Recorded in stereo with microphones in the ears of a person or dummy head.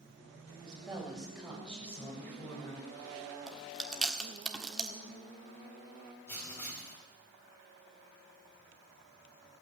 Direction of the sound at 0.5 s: 10° right (ahead or behind).